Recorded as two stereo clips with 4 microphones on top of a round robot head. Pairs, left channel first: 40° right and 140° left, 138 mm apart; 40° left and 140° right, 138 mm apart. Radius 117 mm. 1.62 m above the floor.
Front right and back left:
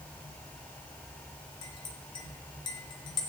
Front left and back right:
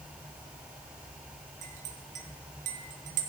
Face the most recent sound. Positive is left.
turn(degrees=-100)